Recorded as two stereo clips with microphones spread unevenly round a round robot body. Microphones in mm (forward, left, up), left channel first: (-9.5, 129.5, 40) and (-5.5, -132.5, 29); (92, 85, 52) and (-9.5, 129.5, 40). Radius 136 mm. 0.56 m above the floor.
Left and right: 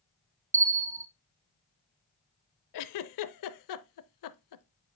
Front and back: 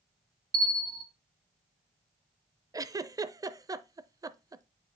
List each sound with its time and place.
0.5 s a bell: 165° right, 0.6 m
2.7 s a giggle: 95° left, 0.5 m